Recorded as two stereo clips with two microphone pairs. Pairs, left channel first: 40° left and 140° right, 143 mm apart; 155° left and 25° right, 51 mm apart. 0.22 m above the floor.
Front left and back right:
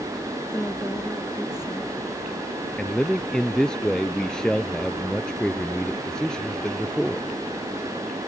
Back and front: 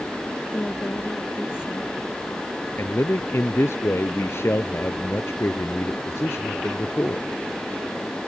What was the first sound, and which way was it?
A woman speaking, 110° left.